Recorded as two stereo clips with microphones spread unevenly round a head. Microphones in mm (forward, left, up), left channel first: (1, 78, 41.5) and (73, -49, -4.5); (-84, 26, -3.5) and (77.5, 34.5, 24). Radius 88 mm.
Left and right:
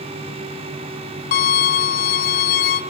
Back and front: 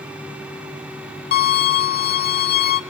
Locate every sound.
1.3 s a violin: 150° left, 1.8 m